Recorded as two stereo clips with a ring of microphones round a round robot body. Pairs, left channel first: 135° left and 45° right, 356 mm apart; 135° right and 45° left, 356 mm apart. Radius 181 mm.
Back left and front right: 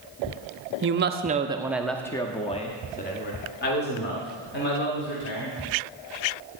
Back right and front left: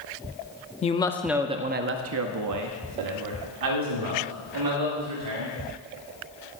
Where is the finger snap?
No finger snap in this recording.